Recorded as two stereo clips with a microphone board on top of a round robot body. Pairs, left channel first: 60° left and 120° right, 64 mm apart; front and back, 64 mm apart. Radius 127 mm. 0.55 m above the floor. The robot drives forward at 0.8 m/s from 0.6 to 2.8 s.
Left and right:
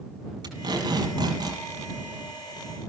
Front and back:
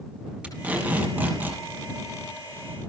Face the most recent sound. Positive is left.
turn(degrees=-120)